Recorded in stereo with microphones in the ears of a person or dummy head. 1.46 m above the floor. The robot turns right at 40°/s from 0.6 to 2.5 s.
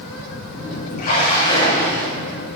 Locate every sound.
1.0 s a splash: 135° left, 2 m; by 2.1 s 175° left, 2 m